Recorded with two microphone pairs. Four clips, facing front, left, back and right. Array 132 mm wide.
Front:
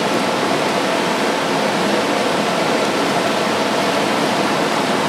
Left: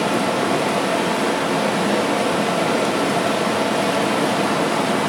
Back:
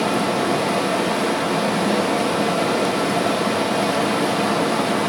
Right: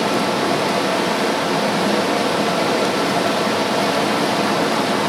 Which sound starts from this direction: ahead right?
Running water, at 0.0 s.